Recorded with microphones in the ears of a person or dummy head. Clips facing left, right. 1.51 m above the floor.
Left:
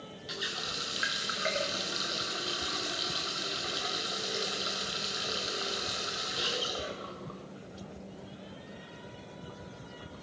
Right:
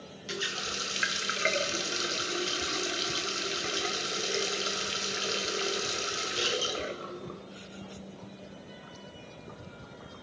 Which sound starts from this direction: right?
A running tap, at 0.3 s.